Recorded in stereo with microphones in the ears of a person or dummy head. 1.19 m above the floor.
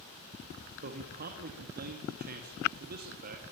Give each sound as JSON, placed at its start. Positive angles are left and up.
{"t": 0.8, "sound": "a man speaking", "side_deg": -50, "distance_m": 2.0}